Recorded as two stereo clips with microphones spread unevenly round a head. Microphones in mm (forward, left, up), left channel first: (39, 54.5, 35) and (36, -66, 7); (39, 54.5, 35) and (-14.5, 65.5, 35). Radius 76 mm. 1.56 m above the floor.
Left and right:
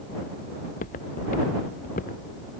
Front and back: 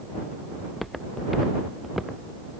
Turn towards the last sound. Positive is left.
turn(degrees=85)